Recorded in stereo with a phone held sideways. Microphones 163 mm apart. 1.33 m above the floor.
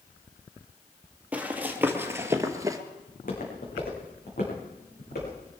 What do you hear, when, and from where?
1.3 s running footsteps: 10° right (ahead or behind), 2 m; by 2.8 s 20° right (ahead or behind), 1.6 m
3.1 s footsteps: 55° left (ahead or behind), 5.5 m; by 5.4 s 70° left (ahead or behind), 6 m